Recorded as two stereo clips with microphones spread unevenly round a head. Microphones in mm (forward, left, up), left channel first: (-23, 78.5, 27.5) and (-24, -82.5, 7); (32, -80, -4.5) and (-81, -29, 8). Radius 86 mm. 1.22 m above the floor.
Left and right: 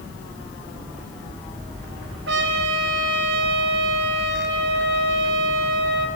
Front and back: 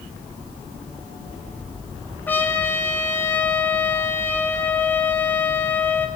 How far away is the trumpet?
About 3.5 m.